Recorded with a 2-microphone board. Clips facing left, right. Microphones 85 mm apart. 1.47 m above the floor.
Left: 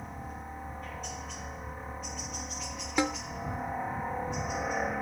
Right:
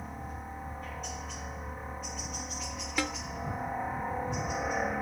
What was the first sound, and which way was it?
A helicopter, centre (ahead or behind).